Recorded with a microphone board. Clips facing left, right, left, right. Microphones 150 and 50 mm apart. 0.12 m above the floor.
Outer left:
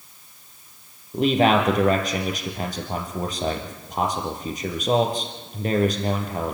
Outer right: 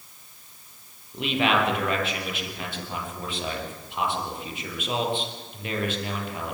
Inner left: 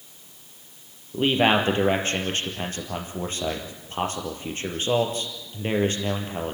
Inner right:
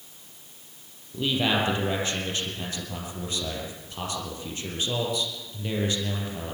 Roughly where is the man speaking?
Left.